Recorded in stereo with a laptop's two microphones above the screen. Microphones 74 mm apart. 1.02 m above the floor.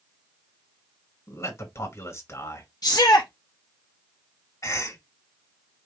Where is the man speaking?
40° left (ahead or behind), 2 m.